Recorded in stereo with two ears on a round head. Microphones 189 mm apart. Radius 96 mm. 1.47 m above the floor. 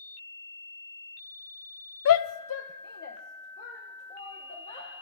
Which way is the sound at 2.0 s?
70° left (ahead or behind).